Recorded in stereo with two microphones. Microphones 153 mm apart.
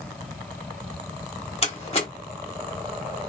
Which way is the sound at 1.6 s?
40° left (ahead or behind).